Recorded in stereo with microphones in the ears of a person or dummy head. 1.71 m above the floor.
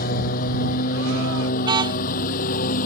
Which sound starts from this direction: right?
A car horn, at 1.6 s.